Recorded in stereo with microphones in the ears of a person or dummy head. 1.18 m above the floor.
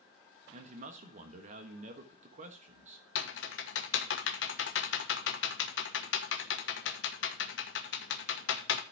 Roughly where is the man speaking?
Right.